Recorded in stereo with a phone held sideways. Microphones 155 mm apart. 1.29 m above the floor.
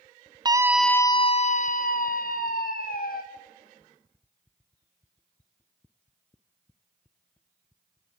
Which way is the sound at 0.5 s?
25° right (ahead or behind).